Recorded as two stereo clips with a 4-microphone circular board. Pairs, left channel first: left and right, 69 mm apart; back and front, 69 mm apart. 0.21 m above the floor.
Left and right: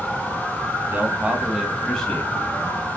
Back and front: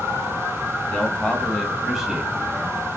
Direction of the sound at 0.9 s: 120° right.